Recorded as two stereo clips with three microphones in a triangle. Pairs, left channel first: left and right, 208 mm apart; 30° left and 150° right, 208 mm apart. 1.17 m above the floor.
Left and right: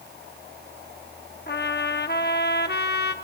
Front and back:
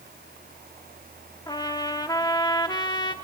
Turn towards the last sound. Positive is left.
turn(degrees=95)